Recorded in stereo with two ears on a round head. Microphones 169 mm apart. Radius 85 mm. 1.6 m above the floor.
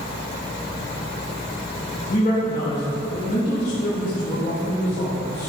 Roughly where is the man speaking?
Left.